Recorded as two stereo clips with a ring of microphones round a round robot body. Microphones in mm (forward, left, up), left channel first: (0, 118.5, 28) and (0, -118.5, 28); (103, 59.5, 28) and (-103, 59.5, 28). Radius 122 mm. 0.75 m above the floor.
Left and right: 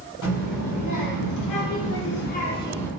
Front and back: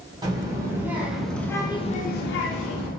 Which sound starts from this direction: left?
A child speaking, at 0.2 s.